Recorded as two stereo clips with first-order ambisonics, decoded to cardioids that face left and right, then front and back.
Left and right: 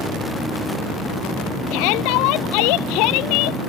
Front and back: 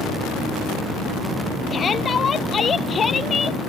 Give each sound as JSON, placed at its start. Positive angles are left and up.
{"t": 1.7, "sound": "a shout", "azimuth_deg": 70}